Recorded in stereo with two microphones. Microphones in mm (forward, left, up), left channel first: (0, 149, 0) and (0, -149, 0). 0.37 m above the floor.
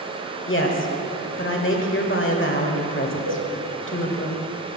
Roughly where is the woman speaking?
Left.